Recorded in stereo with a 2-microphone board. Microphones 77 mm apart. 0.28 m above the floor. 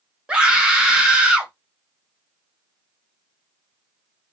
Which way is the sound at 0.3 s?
10° right (ahead or behind).